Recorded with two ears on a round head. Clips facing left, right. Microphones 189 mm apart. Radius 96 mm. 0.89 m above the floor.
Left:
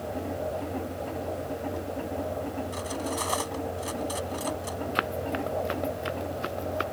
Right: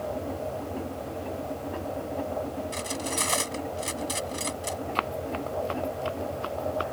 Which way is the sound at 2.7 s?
30° right (ahead or behind).